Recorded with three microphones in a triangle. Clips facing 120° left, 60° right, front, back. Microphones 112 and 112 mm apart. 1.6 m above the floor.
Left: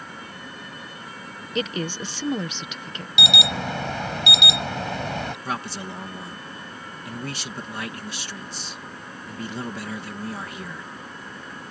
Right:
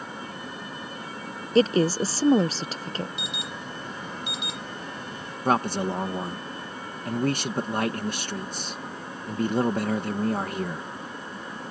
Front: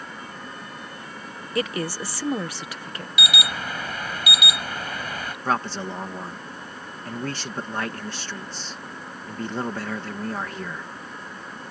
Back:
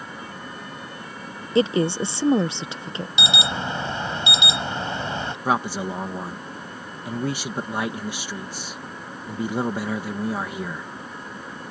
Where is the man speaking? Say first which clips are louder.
Right 7 dB, back 2 dB; 100° right.